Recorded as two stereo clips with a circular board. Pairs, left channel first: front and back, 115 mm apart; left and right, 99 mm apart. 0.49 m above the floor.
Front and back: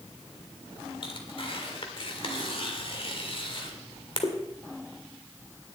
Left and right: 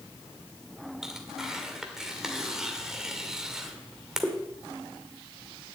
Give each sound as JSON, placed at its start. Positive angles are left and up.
{"t": 1.0, "sound": "tearing paper", "azimuth_deg": -5, "distance_m": 1.8}